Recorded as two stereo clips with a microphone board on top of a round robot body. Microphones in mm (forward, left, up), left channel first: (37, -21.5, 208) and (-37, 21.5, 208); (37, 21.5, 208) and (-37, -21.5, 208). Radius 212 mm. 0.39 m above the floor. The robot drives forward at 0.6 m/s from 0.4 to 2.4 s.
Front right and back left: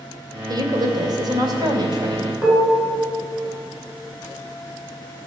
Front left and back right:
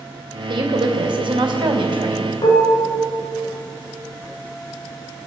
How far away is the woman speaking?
About 2.5 m.